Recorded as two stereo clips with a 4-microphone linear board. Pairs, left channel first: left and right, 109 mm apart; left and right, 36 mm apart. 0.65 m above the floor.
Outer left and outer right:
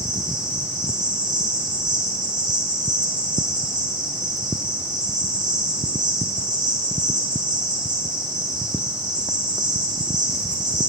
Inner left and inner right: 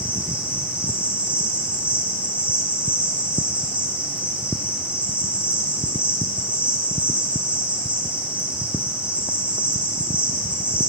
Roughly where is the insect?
Right.